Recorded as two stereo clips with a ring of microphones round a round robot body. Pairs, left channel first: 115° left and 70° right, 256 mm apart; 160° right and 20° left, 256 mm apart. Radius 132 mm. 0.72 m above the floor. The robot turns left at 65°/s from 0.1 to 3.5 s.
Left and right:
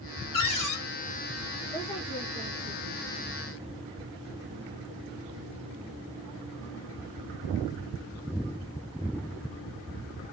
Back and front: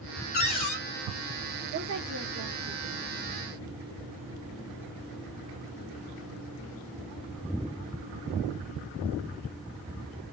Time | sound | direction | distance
0.3 | a cupboard door | 150° left | 3 m
1.7 | a woman speaking | 65° left | 2 m